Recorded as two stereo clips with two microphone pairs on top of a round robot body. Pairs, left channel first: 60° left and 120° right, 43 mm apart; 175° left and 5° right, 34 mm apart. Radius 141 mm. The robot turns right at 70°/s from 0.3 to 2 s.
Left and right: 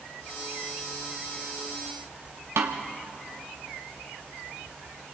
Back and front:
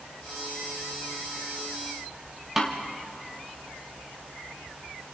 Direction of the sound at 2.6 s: 90° right.